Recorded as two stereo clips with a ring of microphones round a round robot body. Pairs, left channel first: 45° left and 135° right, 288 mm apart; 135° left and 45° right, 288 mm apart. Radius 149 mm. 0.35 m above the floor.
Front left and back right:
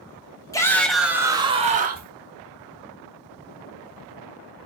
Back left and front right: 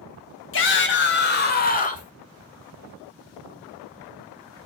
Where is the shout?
120° left, 1.7 m; by 2.1 s 170° right, 1.7 m.